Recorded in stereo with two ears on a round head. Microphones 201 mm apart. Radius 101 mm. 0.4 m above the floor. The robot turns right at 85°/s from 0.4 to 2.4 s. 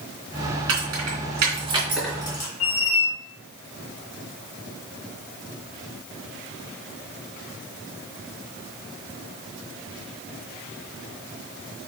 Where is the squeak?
80° left, 1.7 m.